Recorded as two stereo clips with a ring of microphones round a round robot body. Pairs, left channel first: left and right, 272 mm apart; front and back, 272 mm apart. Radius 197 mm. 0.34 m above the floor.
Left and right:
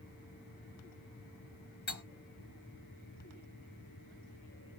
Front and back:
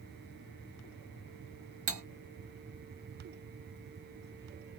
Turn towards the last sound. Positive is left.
turn(degrees=145)